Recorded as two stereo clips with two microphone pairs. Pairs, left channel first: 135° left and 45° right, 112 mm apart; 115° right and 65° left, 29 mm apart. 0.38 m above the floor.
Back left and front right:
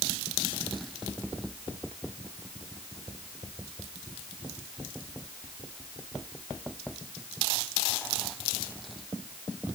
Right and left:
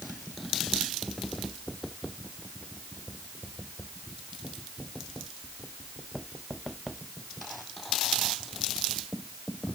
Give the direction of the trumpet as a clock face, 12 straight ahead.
I don't hear a trumpet.